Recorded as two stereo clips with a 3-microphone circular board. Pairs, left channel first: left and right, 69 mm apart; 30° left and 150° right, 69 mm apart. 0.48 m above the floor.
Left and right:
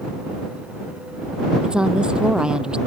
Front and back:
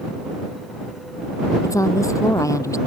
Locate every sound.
1.6 s a woman speaking: 10° right